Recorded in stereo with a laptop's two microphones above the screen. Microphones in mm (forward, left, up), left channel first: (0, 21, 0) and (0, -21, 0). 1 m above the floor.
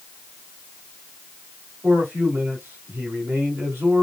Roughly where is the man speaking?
Right.